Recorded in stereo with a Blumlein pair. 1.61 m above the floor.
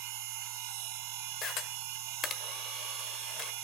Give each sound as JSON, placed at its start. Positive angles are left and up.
{"t": 0.0, "sound": "a machine running", "azimuth_deg": -45, "distance_m": 1.9}
{"t": 1.4, "sound": "a camera shutter", "azimuth_deg": 30, "distance_m": 1.4}